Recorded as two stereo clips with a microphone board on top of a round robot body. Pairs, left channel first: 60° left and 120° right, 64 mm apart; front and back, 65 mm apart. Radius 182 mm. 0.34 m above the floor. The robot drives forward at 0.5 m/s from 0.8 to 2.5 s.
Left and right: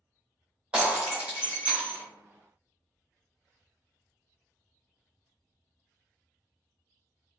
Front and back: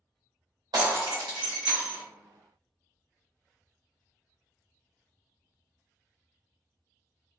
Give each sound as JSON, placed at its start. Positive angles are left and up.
{"t": 0.7, "sound": "breaking glass", "azimuth_deg": 165, "distance_m": 1.2}